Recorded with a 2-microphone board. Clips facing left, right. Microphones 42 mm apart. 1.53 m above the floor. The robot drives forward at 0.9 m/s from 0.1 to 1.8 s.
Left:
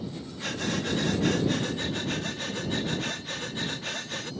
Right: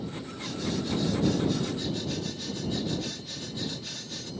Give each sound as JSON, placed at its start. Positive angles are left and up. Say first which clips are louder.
{"t": 0.4, "sound": "breathing", "louder": "left 2 dB", "side_deg": 60}